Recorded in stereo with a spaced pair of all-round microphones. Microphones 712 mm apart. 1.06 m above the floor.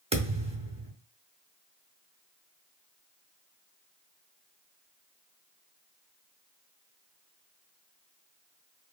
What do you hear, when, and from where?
0.1 s a thud: 10° right (ahead or behind), 0.7 m